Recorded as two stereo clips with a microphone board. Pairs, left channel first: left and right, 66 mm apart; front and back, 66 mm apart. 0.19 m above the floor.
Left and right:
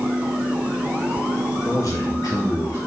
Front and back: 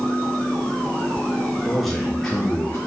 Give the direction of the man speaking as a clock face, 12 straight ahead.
9 o'clock.